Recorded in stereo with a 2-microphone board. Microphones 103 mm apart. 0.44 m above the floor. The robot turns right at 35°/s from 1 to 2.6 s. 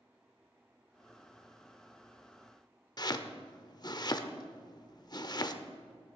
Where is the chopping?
40° left (ahead or behind), 0.7 m.